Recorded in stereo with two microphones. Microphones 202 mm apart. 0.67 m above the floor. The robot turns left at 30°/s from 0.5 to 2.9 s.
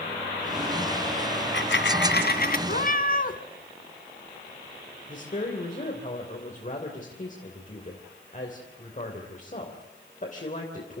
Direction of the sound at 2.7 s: 55° left (ahead or behind).